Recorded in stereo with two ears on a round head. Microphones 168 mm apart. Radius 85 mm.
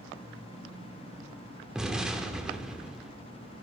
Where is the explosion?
5° right (ahead or behind), 1.1 m.